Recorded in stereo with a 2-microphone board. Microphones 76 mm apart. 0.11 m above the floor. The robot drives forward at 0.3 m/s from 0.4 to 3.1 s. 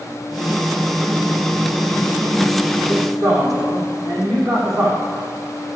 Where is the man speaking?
45° right (ahead or behind), 6 m; by 5.0 s 50° right (ahead or behind), 6 m.